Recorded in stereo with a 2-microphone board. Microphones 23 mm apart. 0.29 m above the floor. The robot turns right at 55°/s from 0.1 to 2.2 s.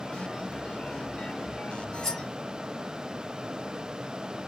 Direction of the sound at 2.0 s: 25° left (ahead or behind).